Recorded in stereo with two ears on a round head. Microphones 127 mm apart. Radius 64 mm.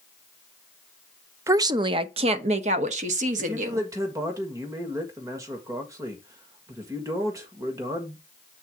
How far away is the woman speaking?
About 0.5 m.